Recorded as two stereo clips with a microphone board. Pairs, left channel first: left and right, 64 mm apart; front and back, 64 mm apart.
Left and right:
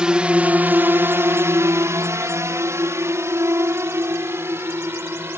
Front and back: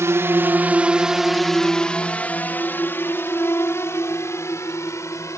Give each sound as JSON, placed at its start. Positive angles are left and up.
{"t": 0.0, "sound": "a drone", "azimuth_deg": -160}